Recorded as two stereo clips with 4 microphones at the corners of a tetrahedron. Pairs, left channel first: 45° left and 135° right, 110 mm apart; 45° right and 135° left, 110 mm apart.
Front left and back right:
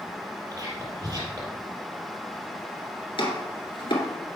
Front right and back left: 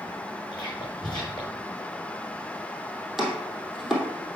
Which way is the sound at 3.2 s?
45° left.